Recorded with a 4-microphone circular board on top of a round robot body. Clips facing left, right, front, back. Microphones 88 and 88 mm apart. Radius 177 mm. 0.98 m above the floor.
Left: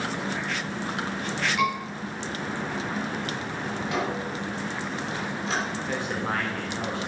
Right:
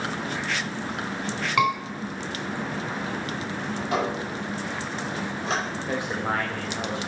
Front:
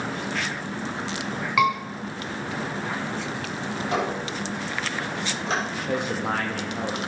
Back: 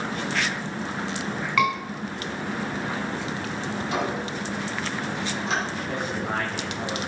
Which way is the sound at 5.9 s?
20° right.